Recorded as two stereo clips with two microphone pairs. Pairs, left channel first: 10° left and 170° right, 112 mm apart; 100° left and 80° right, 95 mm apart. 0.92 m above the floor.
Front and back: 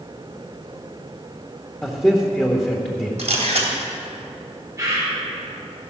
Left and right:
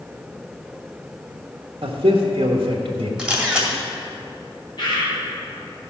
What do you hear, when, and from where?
1.8 s a man speaking: 70° right, 1.3 m
3.2 s a camera shutter: 165° right, 2 m
4.8 s a bird: 130° left, 4 m